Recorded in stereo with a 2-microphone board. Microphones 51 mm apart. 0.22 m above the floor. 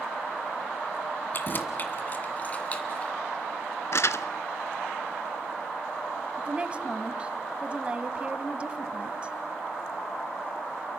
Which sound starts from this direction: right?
A woman speaking, at 6.4 s.